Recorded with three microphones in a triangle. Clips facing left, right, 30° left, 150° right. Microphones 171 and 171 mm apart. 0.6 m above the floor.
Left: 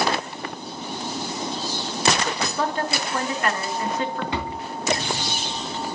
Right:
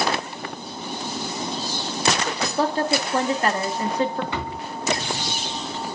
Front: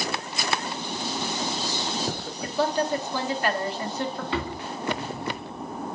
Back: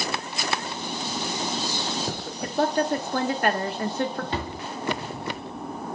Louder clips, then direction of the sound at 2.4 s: Right 7 dB, back 1 dB; 140° right.